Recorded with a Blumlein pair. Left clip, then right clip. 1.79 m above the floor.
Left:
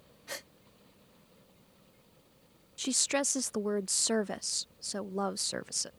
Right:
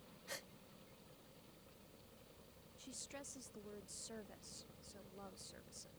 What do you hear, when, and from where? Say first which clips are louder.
0.3 s a gasp: left 8 dB; 25° left
2.8 s a woman speaking: left 23 dB; 40° left